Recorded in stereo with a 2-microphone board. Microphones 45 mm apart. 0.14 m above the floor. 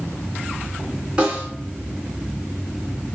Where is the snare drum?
20° right (ahead or behind), 1.8 m.